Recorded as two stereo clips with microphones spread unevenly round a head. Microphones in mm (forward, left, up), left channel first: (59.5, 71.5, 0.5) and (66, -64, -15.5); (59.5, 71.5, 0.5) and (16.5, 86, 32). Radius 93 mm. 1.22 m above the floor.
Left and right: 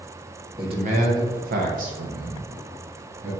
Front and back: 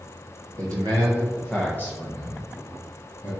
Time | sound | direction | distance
0.6 | a man speaking | 150° right | 1.0 m